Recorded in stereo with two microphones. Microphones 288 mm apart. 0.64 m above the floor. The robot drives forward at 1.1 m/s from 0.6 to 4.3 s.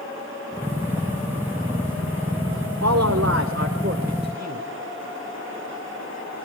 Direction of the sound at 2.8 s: 65° right (ahead or behind).